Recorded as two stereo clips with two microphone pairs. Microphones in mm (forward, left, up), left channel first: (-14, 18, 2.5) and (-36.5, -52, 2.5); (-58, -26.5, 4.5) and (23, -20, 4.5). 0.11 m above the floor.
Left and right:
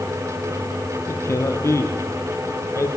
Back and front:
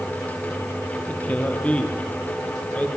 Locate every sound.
1.1 s a man speaking: 115° left, 3 m